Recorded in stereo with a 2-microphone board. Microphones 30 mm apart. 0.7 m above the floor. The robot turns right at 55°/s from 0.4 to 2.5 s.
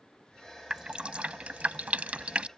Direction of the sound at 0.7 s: 25° right (ahead or behind).